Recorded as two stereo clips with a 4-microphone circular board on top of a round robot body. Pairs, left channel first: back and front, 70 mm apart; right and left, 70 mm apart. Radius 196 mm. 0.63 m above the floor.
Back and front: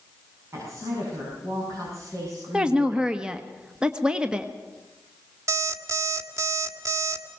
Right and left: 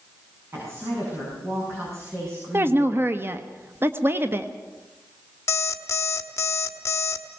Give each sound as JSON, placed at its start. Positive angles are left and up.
{"t": 0.5, "sound": "a woman speaking", "azimuth_deg": 40, "distance_m": 7.5}
{"t": 2.5, "sound": "a woman speaking", "azimuth_deg": 70, "distance_m": 1.3}
{"t": 5.5, "sound": "an alarm clock", "azimuth_deg": -40, "distance_m": 1.3}